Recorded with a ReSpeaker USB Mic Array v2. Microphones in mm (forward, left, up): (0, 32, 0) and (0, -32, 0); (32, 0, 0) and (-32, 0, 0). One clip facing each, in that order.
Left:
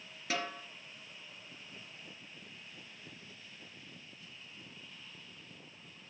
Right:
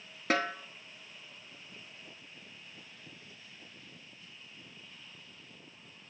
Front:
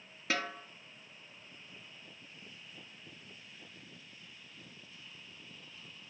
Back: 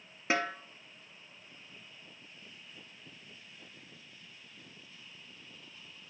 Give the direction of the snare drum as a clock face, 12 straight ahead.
4 o'clock.